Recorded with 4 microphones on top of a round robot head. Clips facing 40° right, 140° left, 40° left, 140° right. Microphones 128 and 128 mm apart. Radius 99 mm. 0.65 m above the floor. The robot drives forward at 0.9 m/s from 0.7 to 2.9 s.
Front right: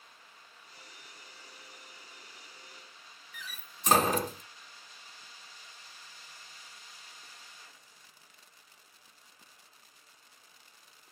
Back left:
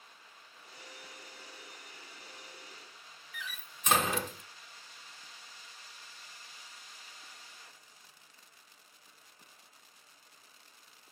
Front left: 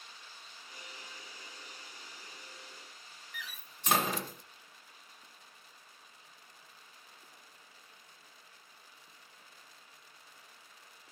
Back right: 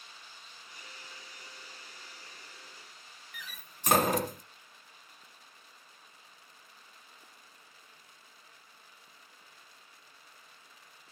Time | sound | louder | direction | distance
3.3 | a door slam | back left 3 dB, front left 1 dB | 95° right | 0.7 m